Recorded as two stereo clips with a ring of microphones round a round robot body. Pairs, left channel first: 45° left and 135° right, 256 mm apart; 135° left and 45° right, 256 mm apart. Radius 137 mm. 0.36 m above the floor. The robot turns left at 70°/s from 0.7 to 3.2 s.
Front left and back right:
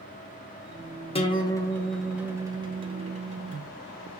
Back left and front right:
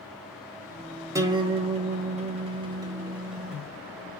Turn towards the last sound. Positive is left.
turn(degrees=-125)